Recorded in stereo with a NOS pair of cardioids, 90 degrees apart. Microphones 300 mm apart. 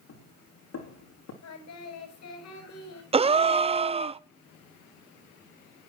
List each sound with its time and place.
0.1 s footsteps: 55° left, 6 m
1.4 s singing: 60° left, 7 m
3.1 s a gasp: 20° right, 0.6 m